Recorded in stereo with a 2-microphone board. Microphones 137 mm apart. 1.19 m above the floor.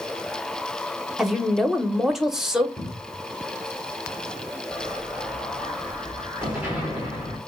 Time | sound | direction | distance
1.2 | a woman speaking | 5° right (ahead or behind) | 0.7 m
2.8 | a cupboard door | 15° left (ahead or behind) | 0.7 m
4.7 | an explosion | 10° right (ahead or behind) | 1.9 m